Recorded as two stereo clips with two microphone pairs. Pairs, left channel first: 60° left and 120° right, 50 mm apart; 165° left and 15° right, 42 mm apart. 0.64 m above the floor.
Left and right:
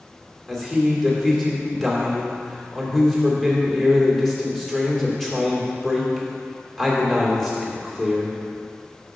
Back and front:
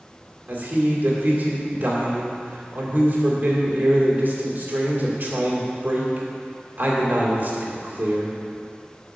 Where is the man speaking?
25° right, 2 m.